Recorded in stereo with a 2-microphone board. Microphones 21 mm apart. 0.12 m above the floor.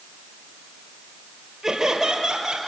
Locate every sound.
1.6 s laughter: 25° right (ahead or behind), 2.5 m; by 2.7 s 40° right (ahead or behind), 3 m